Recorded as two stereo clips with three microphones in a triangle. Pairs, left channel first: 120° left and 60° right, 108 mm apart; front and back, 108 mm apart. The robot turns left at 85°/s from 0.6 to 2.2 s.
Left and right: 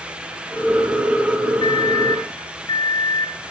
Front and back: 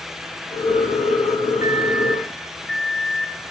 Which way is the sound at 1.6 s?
140° left.